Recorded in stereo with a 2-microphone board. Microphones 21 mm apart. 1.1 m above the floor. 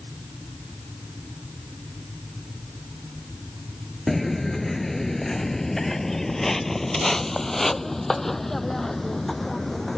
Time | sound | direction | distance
4.1 | footsteps | 15° left (ahead or behind) | ?